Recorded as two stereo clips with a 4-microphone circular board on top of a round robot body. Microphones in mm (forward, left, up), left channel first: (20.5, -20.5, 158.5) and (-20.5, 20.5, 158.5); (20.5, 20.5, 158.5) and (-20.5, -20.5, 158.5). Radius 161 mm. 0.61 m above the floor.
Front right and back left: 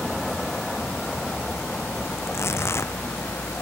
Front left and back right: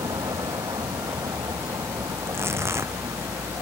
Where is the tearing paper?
90° right.